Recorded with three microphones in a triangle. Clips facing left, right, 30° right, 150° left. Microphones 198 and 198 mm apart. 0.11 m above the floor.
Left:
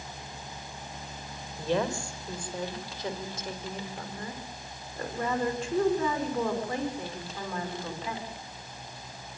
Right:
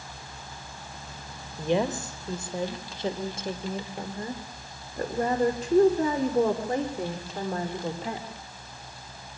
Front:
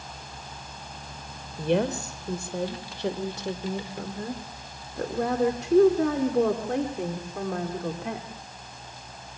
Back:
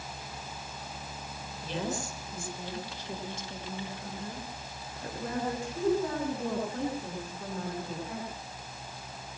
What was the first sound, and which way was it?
A woman speaking, 20° right.